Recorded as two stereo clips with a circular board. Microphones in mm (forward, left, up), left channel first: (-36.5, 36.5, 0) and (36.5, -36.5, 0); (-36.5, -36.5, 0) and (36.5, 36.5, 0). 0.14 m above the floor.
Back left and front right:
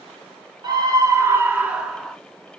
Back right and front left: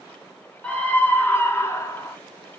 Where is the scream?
65° right, 1.5 m; by 2.1 s 140° right, 1.2 m.